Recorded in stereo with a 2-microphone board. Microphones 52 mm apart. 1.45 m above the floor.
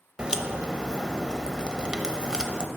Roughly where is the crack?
Centre.